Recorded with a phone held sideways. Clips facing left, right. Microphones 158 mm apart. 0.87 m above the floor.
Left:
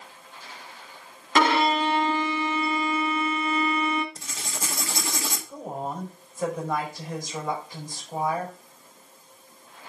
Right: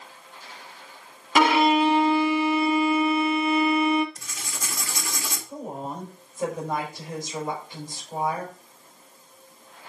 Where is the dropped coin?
No dropped coin in this recording.